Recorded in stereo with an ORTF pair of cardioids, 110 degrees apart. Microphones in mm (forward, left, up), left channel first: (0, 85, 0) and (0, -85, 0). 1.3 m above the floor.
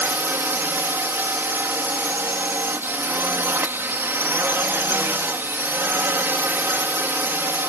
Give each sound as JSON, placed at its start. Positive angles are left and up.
{"t": 0.0, "sound": "a drone", "azimuth_deg": -15}